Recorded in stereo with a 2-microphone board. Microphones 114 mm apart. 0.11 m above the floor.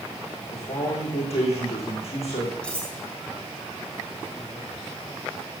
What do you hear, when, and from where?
0.5 s a man speaking: 60° left (ahead or behind), 6 m
2.6 s cutlery clinking: 10° left (ahead or behind), 3.5 m